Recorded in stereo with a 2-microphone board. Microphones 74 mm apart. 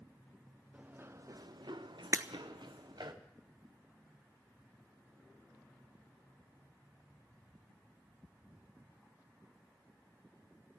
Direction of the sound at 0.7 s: 20° right (ahead or behind).